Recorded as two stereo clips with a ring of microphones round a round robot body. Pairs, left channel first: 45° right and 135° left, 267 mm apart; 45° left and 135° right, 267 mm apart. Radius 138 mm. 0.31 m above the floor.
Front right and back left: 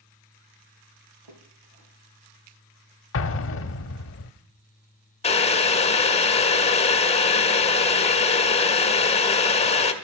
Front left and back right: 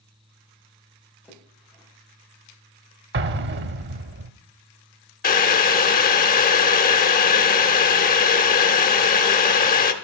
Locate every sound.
1.2 s a splash: 125° left, 4.5 m
3.1 s an explosion: 85° right, 0.7 m
5.2 s boiling: 10° left, 1.2 m